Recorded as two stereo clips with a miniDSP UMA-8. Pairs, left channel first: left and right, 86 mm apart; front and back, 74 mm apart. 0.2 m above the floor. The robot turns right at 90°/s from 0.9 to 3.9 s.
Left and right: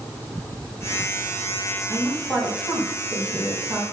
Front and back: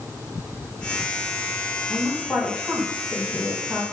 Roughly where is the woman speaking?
Ahead.